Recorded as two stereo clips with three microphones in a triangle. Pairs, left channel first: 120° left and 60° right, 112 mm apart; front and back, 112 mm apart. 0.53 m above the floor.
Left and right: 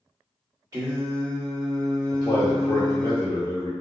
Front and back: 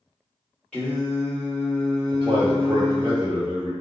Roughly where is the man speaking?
Behind.